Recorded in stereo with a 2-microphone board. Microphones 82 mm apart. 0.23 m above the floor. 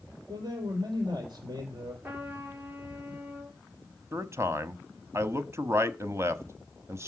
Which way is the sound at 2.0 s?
25° right (ahead or behind).